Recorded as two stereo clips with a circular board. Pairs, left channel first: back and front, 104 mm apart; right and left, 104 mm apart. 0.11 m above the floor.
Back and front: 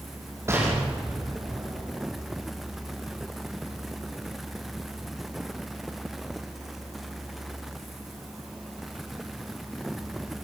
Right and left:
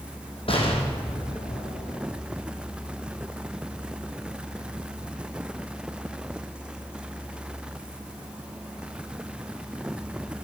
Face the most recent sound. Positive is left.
turn(degrees=-65)